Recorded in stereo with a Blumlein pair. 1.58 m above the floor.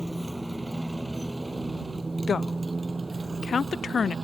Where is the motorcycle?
Straight ahead; by 4.2 s 10° right.